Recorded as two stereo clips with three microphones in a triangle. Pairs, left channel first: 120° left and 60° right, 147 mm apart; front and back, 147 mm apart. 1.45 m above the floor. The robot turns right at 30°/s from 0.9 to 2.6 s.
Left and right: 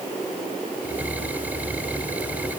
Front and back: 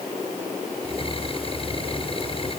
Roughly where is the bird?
I don't hear a bird.